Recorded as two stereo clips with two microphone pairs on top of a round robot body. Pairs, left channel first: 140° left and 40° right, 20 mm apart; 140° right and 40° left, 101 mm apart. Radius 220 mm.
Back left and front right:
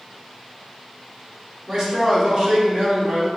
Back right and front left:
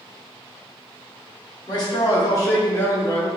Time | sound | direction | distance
1.7 | a man speaking | 100° right | 1.9 m